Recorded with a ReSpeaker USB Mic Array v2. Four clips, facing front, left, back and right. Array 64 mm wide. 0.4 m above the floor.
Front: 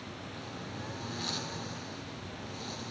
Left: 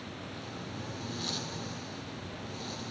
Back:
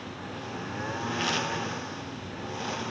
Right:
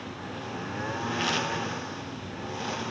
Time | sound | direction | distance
0.0 | a lawn mower | 130° right | ?